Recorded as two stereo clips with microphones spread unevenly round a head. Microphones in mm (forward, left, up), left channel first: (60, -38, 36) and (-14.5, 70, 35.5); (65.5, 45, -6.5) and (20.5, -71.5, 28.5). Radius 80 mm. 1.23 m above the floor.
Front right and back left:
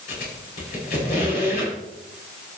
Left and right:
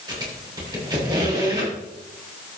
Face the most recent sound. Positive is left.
turn(degrees=-55)